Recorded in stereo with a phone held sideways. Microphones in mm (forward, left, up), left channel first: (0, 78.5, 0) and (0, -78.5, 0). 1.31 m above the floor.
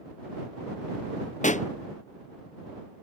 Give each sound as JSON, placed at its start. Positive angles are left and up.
{"t": 1.4, "sound": "a pop", "side_deg": 50}